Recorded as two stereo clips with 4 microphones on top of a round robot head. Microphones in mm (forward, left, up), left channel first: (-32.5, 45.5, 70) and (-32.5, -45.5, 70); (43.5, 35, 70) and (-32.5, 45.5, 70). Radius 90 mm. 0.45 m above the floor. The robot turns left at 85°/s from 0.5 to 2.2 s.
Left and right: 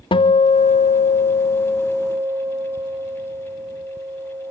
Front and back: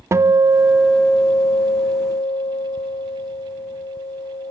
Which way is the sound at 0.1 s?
120° left.